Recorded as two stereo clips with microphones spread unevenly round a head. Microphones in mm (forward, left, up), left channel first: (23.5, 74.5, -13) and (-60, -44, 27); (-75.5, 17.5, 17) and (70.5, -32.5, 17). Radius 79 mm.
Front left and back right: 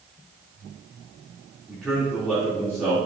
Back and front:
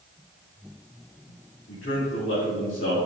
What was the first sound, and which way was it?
A man speaking, 150° left.